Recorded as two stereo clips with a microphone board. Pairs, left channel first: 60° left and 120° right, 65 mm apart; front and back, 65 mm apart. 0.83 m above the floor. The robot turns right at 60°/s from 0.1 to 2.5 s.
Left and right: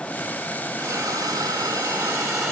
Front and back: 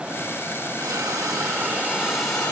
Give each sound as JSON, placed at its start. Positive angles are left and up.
{"t": 0.8, "sound": "a hiss", "azimuth_deg": -175, "distance_m": 4.5}